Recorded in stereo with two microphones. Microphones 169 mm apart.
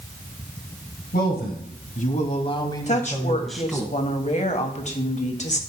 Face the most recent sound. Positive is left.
turn(degrees=45)  # may be behind; listen again after turning